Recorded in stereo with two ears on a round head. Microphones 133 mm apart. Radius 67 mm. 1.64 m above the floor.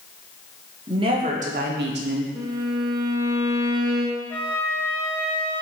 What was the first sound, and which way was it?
A woman speaking, 30° right (ahead or behind).